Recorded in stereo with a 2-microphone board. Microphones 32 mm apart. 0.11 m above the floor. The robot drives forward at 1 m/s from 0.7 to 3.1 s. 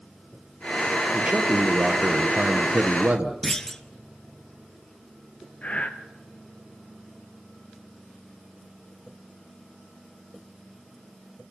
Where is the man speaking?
30° right (ahead or behind), 3 m; by 3.3 s 45° right (ahead or behind), 2 m.